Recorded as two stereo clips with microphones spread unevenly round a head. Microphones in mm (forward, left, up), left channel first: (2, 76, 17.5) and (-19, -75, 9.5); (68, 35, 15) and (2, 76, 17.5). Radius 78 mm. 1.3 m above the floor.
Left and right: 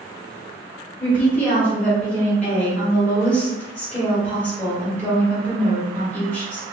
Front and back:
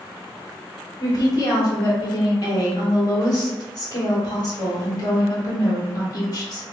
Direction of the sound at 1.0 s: Straight ahead.